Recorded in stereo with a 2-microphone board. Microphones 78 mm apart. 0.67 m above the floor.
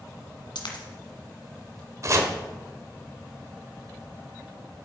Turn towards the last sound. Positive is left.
turn(degrees=-40)  # may be behind; listen again after turning